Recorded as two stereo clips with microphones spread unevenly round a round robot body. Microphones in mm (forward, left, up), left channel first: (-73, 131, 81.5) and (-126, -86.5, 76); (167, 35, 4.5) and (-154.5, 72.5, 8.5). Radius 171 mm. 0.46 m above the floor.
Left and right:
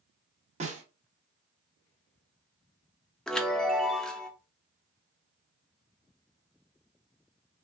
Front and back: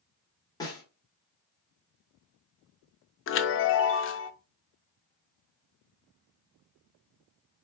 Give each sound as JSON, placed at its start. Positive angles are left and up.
{"t": 0.6, "sound": "a snare drum", "azimuth_deg": -75, "distance_m": 1.5}
{"t": 3.3, "sound": "a chime", "azimuth_deg": -10, "distance_m": 0.5}